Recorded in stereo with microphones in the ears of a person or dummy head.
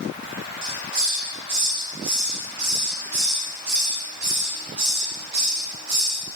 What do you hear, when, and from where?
0.6 s a hiss: 50° right (ahead or behind), 0.6 m